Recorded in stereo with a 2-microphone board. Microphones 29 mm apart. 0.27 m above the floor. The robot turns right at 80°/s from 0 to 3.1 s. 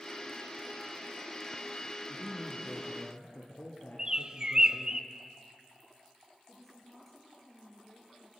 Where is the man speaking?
15° left, 4 m; by 5.0 s 100° left, 4 m.